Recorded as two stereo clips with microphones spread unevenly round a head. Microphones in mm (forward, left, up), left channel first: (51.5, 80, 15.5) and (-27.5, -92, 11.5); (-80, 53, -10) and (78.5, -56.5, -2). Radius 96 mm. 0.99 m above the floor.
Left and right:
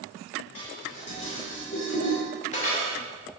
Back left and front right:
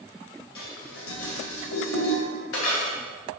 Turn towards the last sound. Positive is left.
turn(degrees=125)